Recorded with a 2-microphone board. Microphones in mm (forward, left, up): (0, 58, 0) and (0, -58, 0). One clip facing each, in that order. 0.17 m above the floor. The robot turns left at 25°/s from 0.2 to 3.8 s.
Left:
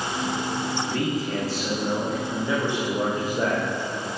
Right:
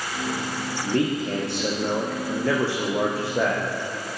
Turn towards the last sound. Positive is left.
turn(degrees=-115)